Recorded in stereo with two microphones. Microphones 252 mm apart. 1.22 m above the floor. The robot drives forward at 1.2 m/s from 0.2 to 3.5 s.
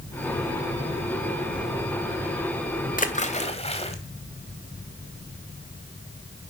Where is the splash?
35° left (ahead or behind), 1.7 m; by 4.0 s 25° left (ahead or behind), 2 m.